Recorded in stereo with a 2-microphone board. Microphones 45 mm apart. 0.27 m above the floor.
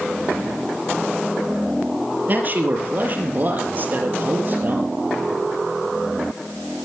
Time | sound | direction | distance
2.3 | a man speaking | 40° right (ahead or behind) | 5.5 m